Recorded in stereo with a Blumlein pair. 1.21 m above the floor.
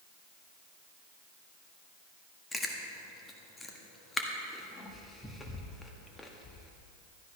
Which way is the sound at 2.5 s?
10° left.